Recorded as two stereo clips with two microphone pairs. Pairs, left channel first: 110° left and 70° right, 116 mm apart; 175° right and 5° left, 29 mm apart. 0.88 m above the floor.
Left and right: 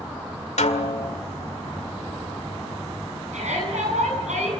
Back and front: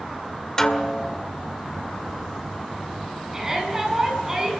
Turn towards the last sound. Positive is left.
turn(degrees=-70)